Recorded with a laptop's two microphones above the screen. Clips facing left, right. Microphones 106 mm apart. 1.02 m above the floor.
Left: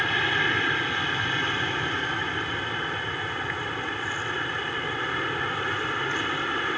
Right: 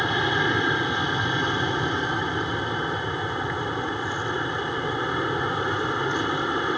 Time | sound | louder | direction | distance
0.0 | an aircraft | right 3 dB | 20° right (ahead or behind) | ?